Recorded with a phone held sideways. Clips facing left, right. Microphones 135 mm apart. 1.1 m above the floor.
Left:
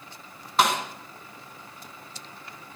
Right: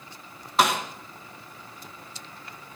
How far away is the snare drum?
About 2.5 m.